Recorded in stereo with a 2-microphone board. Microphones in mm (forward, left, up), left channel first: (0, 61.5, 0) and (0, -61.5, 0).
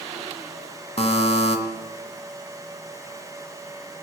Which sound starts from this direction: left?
A buzzer, at 1.0 s.